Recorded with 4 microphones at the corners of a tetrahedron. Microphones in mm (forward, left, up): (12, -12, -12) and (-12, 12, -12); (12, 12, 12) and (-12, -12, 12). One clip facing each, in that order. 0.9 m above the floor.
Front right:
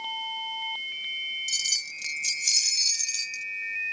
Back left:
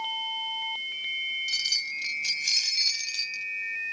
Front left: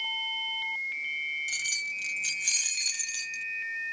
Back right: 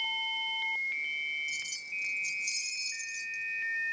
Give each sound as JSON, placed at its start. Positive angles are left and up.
{"t": 1.5, "sound": "keys jangling", "azimuth_deg": 70}